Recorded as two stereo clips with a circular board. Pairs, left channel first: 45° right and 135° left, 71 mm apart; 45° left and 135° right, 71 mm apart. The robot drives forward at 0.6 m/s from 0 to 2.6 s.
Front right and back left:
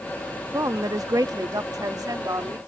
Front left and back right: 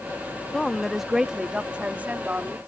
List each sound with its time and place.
0.5 s a woman speaking: 120° left; by 2.6 s 160° left